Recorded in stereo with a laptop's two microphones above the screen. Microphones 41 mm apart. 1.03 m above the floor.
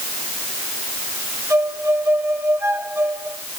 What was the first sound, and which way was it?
A violin, 75° right (ahead or behind).